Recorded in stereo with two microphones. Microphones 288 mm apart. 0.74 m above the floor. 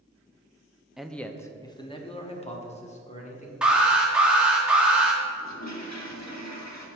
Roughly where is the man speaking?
Centre.